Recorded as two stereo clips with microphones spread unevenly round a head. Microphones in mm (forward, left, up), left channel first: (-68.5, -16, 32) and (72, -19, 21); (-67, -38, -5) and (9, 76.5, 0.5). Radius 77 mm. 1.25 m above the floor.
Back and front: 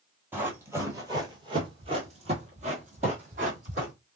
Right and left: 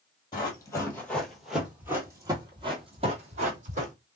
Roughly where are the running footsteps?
Right.